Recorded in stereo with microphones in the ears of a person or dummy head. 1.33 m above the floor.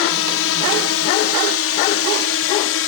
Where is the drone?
70° left (ahead or behind); by 2.9 s 60° left (ahead or behind).